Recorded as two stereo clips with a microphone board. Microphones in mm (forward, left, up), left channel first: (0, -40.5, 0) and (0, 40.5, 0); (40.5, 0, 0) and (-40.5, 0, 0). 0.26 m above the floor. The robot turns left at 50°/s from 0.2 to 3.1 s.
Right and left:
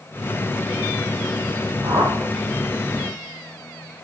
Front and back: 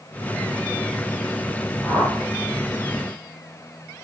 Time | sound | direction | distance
1.8 | a whoosh | 90° left | 3 m